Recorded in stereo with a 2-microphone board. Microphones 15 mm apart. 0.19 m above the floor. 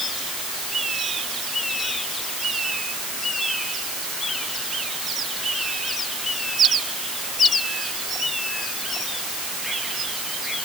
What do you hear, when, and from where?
Only background noise.